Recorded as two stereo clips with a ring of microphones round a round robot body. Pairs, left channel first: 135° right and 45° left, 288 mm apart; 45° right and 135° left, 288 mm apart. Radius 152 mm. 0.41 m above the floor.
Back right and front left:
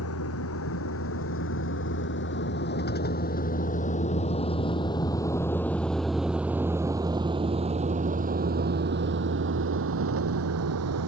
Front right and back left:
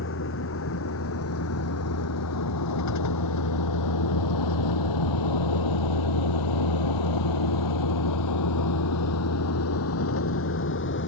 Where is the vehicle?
95° right; by 11.1 s 5° left.